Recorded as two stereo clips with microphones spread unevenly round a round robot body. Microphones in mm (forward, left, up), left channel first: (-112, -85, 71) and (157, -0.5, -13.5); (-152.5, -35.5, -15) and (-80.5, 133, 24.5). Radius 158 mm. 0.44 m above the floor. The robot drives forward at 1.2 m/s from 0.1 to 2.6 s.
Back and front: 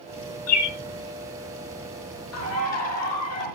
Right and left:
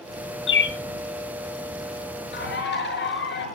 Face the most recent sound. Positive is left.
turn(degrees=-130)